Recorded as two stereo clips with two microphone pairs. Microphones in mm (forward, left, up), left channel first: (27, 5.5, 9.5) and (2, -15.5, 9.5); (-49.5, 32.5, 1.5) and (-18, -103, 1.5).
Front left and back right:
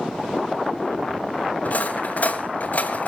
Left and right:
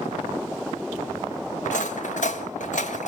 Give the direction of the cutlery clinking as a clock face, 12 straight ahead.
10 o'clock.